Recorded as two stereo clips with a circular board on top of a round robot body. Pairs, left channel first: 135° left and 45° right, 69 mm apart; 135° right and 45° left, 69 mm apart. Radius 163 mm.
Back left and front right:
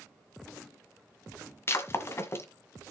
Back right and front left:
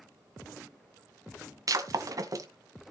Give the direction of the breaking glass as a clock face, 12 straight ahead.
9 o'clock.